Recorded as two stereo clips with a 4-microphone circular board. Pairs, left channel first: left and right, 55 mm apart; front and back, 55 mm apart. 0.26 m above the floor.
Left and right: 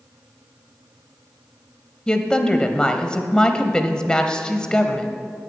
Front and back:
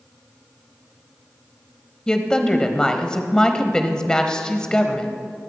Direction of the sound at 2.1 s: 45° left.